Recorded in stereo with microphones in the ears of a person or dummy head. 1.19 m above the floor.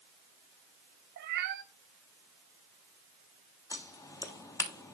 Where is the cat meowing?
50° right (ahead or behind), 1.1 m.